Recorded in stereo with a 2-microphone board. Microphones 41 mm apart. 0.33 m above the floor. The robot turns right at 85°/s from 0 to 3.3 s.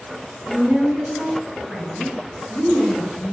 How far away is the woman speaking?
About 1.8 m.